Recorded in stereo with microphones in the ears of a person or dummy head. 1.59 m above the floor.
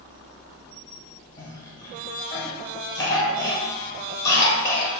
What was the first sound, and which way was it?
A cough, 20° left (ahead or behind).